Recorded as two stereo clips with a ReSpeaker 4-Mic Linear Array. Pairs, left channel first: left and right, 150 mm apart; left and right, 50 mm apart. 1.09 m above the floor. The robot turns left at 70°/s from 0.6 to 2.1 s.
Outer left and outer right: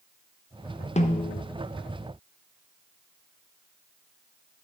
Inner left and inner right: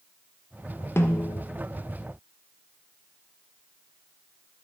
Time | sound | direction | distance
1.0 | a snare drum | 130° left | 0.7 m